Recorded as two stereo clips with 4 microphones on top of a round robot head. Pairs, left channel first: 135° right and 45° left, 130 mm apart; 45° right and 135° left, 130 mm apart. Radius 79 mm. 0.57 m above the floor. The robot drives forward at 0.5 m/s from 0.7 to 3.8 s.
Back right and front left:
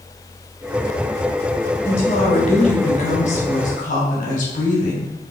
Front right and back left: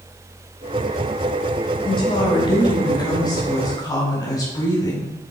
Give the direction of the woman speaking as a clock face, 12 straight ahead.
3 o'clock.